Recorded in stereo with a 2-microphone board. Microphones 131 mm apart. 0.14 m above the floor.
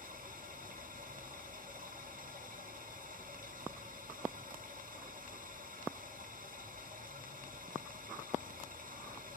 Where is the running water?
85° right, 2 m.